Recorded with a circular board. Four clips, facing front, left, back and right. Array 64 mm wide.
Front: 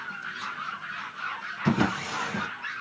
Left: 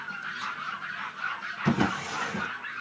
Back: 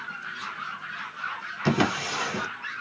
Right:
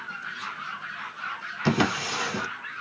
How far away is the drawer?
About 0.5 m.